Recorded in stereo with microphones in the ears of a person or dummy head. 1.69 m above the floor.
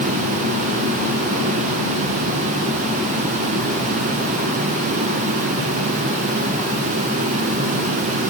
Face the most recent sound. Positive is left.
No sound to turn to.